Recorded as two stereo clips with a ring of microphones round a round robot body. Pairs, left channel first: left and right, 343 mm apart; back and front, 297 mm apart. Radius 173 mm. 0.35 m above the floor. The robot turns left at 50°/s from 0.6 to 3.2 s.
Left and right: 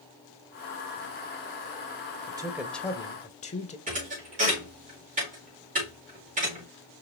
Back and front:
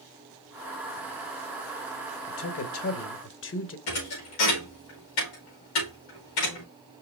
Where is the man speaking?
160° right, 1.1 m; by 3.8 s 155° left, 1.1 m.